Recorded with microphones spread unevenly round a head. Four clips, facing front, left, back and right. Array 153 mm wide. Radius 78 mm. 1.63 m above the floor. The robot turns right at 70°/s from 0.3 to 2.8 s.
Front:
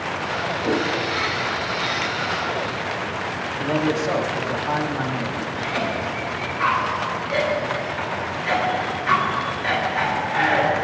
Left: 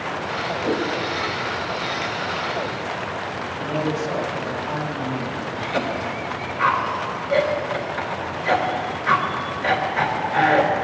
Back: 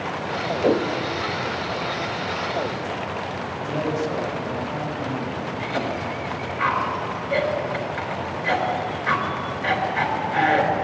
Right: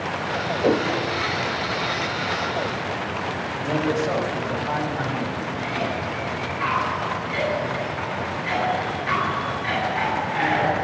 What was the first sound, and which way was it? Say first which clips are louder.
A whoosh: right 4 dB, back 4 dB; 145° right.